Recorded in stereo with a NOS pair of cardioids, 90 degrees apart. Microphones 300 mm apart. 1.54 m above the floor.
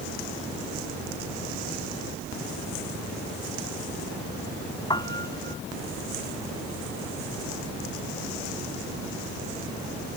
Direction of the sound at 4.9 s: 15° left.